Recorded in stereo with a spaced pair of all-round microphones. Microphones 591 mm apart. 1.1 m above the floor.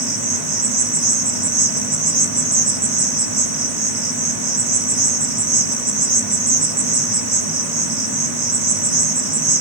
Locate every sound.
0.0 s an insect: 50° right (ahead or behind), 1.4 m